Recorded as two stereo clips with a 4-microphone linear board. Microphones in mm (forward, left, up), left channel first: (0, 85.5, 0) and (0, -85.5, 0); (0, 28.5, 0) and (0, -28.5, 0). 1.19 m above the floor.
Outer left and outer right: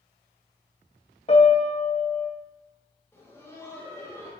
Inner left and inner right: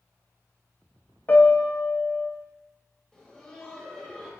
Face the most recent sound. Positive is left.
turn(degrees=15)  # may be behind; listen again after turning